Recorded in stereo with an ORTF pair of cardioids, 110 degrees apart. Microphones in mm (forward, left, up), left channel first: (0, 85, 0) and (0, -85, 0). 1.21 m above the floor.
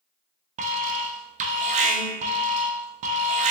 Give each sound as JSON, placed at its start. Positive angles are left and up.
{"t": 0.6, "sound": "an alarm", "azimuth_deg": -45, "distance_m": 0.6}